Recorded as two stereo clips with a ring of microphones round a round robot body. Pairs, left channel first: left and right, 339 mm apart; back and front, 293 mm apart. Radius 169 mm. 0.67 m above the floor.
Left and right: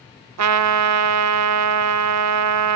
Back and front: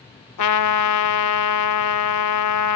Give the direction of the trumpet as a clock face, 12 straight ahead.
5 o'clock.